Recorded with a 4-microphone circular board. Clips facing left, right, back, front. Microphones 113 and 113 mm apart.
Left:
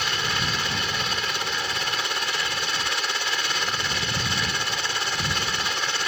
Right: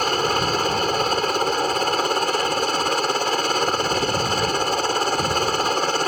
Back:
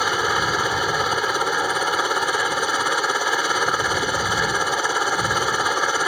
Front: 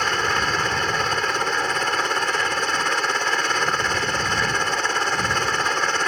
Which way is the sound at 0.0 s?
105° right.